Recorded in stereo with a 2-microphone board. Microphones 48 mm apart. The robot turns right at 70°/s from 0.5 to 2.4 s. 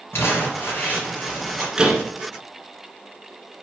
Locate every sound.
0.1 s crumpling: 110° left, 4.5 m; by 1.7 s 170° right, 4.5 m
1.8 s a door slam: 20° right (ahead or behind), 1.5 m; by 2.0 s centre (ahead or behind), 1.5 m